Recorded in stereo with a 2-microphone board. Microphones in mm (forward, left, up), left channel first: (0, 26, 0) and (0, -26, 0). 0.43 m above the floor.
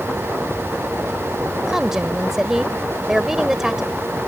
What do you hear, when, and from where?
1.7 s a woman speaking: 5° right (ahead or behind)